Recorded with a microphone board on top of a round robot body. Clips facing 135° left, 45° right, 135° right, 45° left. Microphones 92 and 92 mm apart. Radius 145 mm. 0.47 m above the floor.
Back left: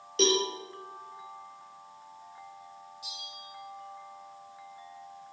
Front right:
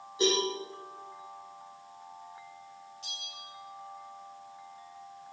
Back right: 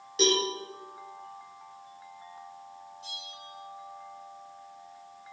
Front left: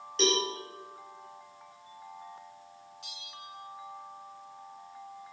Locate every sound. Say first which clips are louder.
0.2 s a cowbell: back left 2 dB, back right 2 dB; 140° left, 6 m
3.0 s a bell: back left 1 dB, back right 2 dB; 55° left, 4 m